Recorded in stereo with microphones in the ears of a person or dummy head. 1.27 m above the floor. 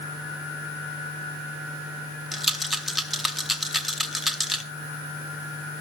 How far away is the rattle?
About 0.7 m.